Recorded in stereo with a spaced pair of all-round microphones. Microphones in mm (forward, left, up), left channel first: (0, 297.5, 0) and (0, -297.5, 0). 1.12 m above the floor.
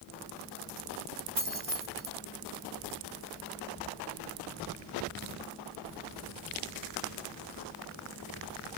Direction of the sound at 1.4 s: 60° right (ahead or behind).